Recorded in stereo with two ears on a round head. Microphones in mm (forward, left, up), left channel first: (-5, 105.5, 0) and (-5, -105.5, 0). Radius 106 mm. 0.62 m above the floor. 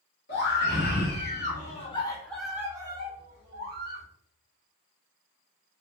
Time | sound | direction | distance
0.3 | a scream | 50° left (ahead or behind) | 1.8 m